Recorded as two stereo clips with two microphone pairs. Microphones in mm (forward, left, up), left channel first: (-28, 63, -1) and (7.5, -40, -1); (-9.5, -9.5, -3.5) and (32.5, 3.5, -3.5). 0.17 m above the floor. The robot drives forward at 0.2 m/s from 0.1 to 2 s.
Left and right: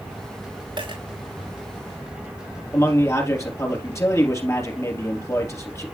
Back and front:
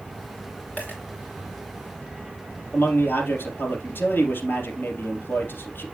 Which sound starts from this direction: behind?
A man speaking, at 2.7 s.